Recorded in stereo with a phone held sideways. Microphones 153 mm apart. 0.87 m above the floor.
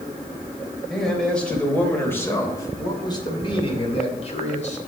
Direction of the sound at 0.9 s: Centre (ahead or behind).